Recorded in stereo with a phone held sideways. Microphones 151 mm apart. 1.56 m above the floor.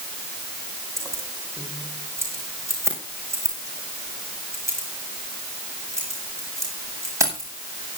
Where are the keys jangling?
20° right (ahead or behind), 5.5 m.